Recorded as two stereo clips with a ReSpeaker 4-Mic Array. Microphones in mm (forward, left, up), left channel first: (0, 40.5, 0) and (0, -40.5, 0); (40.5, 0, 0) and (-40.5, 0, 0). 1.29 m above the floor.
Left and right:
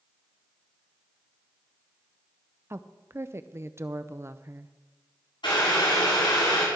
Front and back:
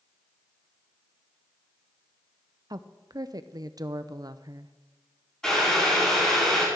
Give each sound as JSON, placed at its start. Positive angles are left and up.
{"t": 2.7, "sound": "a woman speaking", "azimuth_deg": -145, "distance_m": 0.6}
{"t": 5.4, "sound": "boiling", "azimuth_deg": 80, "distance_m": 5.5}